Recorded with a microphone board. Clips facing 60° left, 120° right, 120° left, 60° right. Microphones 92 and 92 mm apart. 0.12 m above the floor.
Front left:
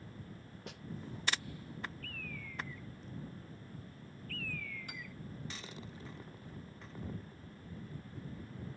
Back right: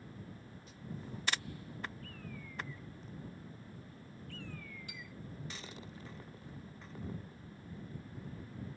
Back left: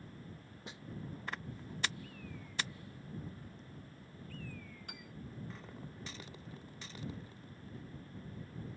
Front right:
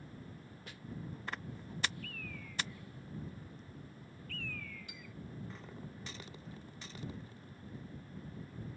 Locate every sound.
0.7 s a snare drum: 50° left
2.0 s a bird: 60° right
4.9 s a piano: 95° left